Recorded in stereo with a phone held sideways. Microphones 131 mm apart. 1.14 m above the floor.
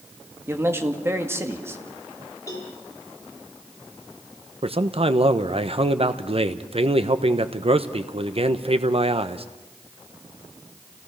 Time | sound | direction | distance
0.5 | a man speaking | 20° right (ahead or behind) | 2 m
2.5 | a cowbell | 25° left (ahead or behind) | 5.5 m
4.6 | a man speaking | 50° right (ahead or behind) | 1.1 m